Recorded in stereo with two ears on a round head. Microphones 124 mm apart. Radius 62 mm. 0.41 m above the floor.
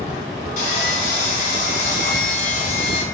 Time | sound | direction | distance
0.6 | sawing | 60° left (ahead or behind) | 3 m